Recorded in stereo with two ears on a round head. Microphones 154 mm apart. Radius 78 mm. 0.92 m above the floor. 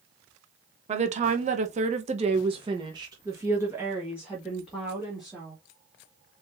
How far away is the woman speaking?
About 1.2 m.